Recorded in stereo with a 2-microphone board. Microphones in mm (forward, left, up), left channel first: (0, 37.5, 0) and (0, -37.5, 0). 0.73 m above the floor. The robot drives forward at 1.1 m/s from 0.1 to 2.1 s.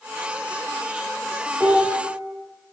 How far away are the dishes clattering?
About 1.5 m.